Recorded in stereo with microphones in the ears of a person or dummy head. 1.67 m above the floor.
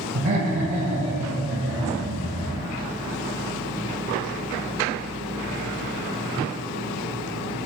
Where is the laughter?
40° right (ahead or behind), 0.9 m.